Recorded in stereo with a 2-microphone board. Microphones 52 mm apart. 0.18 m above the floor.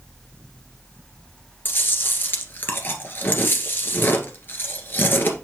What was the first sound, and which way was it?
Chewing, 45° left (ahead or behind).